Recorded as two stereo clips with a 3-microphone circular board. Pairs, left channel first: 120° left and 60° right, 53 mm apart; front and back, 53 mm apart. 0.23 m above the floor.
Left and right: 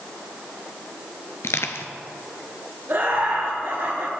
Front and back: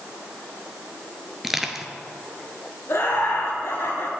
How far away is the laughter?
About 3 m.